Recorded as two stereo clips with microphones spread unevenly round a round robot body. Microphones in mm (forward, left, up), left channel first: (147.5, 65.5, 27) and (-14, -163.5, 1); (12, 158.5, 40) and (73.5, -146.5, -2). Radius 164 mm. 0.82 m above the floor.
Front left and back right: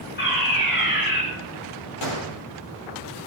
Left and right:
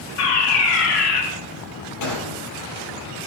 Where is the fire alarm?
120° left, 5 m.